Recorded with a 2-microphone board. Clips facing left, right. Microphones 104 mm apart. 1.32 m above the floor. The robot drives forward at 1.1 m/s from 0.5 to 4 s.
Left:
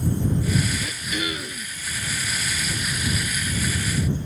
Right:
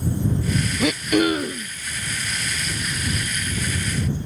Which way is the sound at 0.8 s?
85° right.